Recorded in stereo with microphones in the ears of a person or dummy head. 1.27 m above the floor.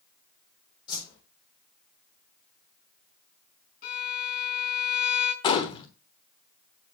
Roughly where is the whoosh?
Left.